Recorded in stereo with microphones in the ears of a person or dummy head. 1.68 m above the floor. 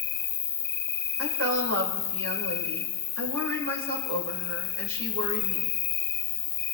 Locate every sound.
0.0 s an insect: 10° left (ahead or behind), 0.9 m
1.2 s a woman speaking: 75° right (ahead or behind), 2.5 m